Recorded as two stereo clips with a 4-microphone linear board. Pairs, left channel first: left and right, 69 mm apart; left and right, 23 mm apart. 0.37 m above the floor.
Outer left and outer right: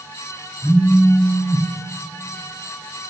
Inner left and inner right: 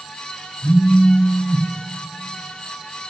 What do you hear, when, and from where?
0.6 s a phone buzzing: 45° left (ahead or behind), 2 m